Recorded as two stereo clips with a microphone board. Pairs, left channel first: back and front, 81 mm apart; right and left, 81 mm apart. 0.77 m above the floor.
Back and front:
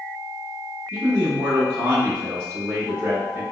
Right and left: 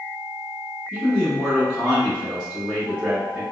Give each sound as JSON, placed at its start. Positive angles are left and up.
{"t": 0.9, "sound": "a man speaking", "azimuth_deg": 15, "distance_m": 0.9}